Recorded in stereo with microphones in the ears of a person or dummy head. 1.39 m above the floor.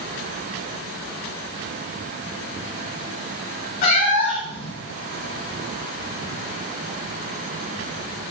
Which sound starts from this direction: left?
A cat meowing, at 3.8 s.